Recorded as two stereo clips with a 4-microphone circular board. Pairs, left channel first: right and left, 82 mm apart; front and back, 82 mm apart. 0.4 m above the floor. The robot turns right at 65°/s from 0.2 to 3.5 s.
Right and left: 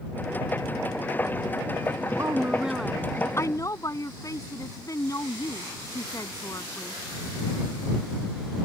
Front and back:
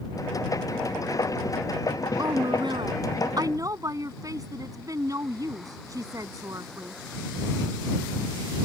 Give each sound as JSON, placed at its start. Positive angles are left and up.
{"t": 2.2, "sound": "a woman speaking", "azimuth_deg": 140}